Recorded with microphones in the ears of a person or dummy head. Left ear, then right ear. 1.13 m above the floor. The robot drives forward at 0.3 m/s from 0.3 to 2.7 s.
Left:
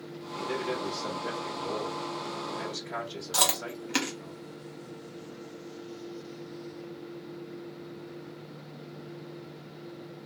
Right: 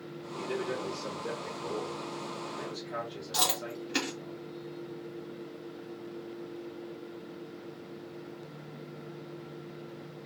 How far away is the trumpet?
No trumpet in this recording.